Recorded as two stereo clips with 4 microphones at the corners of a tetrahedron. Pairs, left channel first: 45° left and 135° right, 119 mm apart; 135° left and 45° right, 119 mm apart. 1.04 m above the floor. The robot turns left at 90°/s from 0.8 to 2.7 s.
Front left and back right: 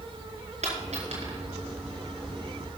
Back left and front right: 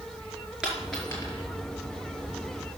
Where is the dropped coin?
130° right, 4.5 m; by 1.4 s straight behind, 4.5 m.